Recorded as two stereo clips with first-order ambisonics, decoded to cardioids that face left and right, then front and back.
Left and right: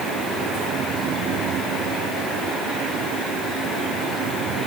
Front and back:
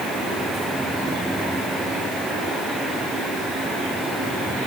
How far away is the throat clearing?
No throat clearing in this recording.